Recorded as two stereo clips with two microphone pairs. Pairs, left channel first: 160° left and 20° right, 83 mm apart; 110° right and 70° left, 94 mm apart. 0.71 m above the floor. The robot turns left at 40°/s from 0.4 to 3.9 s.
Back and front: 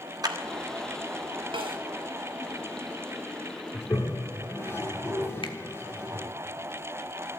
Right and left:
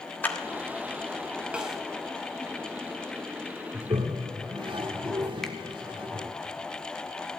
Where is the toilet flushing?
105° left, 1.4 m; by 6.3 s 100° left, 1.4 m.